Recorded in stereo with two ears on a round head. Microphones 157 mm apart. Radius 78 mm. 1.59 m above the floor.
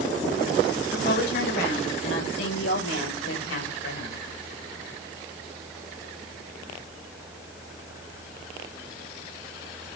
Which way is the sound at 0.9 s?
60° left (ahead or behind).